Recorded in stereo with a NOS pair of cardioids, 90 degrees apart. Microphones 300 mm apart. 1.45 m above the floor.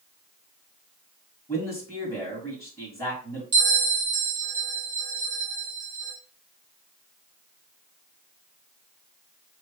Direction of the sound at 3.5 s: 60° right.